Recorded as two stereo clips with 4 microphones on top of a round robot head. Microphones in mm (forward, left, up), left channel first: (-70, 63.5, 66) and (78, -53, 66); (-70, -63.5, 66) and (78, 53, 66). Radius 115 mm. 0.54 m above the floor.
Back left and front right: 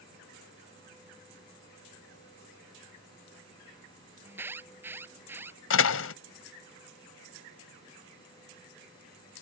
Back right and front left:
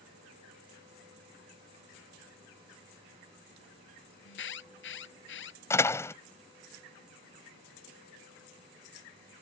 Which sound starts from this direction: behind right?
An alarm, at 4.2 s.